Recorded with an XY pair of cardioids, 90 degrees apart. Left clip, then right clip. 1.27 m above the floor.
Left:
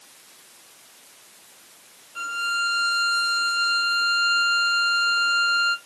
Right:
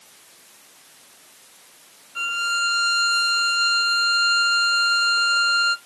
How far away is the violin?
About 0.7 m.